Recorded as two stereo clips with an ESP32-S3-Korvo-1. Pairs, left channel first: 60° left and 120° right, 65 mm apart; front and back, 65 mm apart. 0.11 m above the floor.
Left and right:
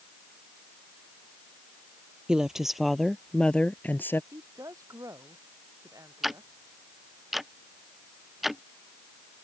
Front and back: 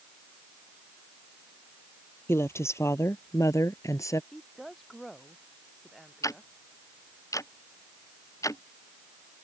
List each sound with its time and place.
2.3 s a woman speaking: 40° right; by 4.2 s 15° left
4.3 s a woman speaking: 90° right
6.2 s ticking: 35° right